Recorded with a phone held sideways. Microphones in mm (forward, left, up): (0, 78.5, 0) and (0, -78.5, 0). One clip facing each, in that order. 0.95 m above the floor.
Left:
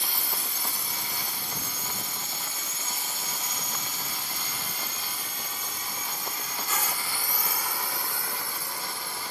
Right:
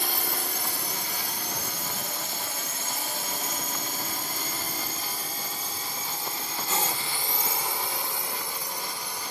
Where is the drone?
65° right (ahead or behind); by 9.3 s 15° right (ahead or behind).